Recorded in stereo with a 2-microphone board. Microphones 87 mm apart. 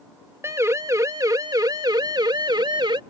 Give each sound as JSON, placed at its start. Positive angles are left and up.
{"t": 0.4, "sound": "a siren", "side_deg": -35}